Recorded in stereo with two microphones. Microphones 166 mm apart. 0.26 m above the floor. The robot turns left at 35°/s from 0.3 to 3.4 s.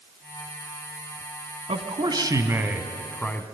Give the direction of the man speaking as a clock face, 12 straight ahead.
4 o'clock.